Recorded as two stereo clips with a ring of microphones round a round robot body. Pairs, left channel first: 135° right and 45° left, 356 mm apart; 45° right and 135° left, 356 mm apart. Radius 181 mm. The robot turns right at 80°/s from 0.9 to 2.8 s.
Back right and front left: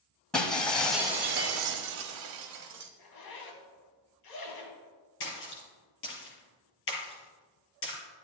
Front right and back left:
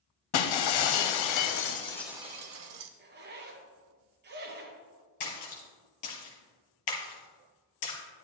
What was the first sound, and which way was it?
Breaking glass, 45° right.